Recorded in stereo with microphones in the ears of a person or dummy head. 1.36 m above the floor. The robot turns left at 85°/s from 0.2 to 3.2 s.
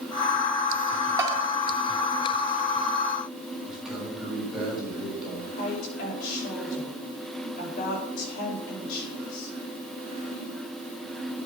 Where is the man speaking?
5° right (ahead or behind), 6.5 m.